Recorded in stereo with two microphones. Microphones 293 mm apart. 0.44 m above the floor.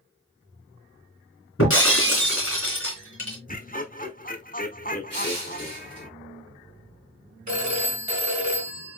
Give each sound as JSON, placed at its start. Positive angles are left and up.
{"t": 1.6, "sound": "breaking glass", "side_deg": 45, "distance_m": 2.5}
{"t": 3.5, "sound": "laughter", "side_deg": 30, "distance_m": 1.0}
{"t": 5.1, "sound": "crushing", "side_deg": -55, "distance_m": 3.5}
{"t": 7.5, "sound": "a phone ringing", "side_deg": -70, "distance_m": 1.8}